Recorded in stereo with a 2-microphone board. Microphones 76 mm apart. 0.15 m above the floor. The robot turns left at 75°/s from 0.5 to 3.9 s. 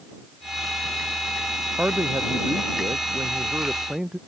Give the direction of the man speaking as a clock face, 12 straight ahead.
1 o'clock.